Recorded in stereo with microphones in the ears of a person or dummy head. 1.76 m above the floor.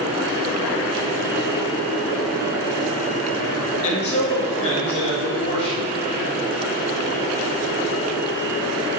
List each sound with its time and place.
3.8 s a man speaking: 30° left (ahead or behind), 1.4 m